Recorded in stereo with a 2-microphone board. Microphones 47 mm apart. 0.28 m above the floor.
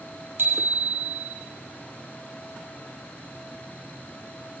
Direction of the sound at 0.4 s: 50° right (ahead or behind).